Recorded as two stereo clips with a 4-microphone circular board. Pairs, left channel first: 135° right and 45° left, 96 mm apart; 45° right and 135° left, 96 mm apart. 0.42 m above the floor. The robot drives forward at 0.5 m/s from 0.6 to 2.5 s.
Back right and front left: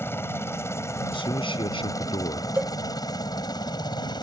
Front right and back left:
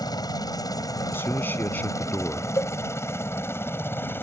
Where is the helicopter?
75° right; by 4.2 s 105° right.